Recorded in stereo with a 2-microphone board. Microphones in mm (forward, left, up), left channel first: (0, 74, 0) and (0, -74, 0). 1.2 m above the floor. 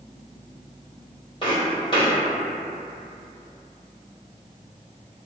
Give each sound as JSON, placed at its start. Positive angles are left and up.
{"t": 1.4, "sound": "footsteps", "side_deg": 35, "distance_m": 1.7}